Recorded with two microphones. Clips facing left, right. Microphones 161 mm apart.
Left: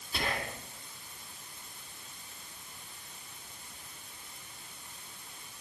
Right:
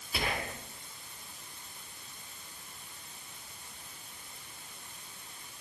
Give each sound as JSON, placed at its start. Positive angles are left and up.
{"t": 0.1, "sound": "whispering", "side_deg": -10, "distance_m": 1.7}